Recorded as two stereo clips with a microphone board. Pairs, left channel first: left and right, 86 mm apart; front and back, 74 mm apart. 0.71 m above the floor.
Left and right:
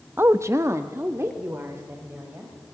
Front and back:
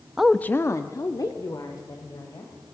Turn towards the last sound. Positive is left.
turn(degrees=-30)